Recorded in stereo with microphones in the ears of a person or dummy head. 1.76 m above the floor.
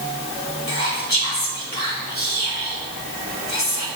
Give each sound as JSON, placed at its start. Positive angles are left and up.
{"t": 0.7, "sound": "whispering", "side_deg": 25, "distance_m": 2.0}